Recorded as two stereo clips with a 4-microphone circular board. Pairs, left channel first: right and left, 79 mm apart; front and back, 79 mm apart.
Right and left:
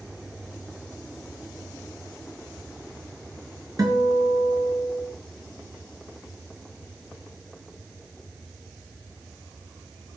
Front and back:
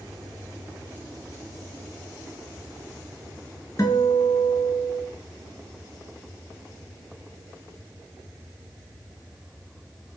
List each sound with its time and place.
3.8 s a guitar: 50° left, 4.5 m